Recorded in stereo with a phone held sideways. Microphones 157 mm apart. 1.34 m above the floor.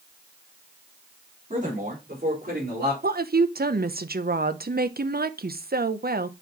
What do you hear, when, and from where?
1.5 s a man speaking: 55° right (ahead or behind), 4 m; by 2.9 s 75° right (ahead or behind), 4.5 m
3.0 s a woman speaking: 70° right (ahead or behind), 0.7 m